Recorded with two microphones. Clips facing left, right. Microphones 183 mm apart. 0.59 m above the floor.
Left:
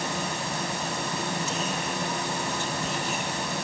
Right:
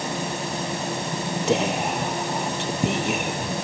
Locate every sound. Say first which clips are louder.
1.5 s whispering: right 8 dB; 70° right (ahead or behind)